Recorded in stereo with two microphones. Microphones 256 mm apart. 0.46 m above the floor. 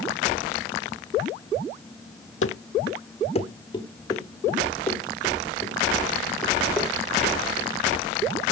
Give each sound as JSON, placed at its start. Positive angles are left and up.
{"t": 2.4, "sound": "running footsteps", "side_deg": 60, "distance_m": 0.8}